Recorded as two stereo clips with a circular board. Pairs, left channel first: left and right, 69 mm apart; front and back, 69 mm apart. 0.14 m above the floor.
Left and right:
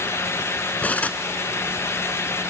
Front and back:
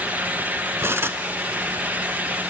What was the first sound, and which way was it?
Cutlery clinking, 150° left.